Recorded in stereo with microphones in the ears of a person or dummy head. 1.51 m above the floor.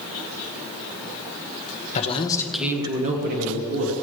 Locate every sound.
1.9 s a man speaking: 35° left (ahead or behind), 1.5 m; by 3.9 s 65° right (ahead or behind), 2.5 m